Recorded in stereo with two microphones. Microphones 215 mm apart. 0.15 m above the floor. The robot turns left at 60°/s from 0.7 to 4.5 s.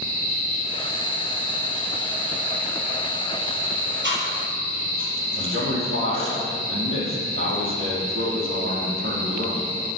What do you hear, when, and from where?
4.0 s chewing: 55° right (ahead or behind), 3.5 m; by 6.4 s 70° right (ahead or behind), 3.5 m
5.4 s a man speaking: 75° right (ahead or behind), 4.5 m